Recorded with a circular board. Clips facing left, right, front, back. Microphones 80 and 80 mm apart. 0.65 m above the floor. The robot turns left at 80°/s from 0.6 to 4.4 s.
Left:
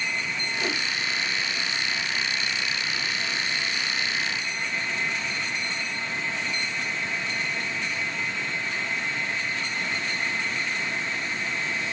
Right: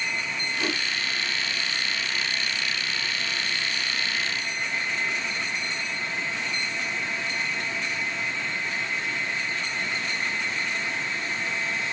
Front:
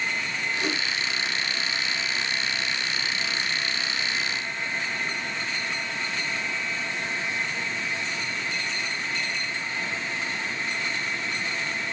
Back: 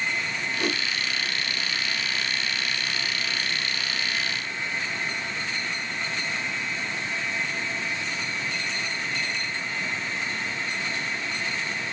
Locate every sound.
0.6 s a whoosh: 160° right, 2.5 m; by 0.8 s straight behind, 2.5 m